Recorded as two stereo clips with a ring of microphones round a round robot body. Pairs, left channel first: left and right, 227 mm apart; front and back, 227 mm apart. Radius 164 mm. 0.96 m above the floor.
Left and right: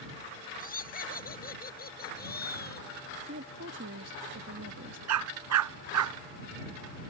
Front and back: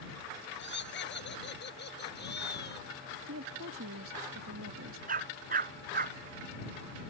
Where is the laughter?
40° left; by 2.9 s 45° left.